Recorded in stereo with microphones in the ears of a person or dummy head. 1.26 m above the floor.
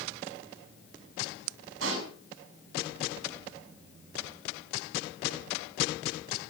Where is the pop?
85° right, 5.5 m.